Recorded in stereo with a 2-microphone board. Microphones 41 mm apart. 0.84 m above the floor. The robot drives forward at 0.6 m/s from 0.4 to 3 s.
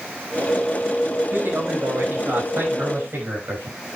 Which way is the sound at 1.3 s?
55° right (ahead or behind).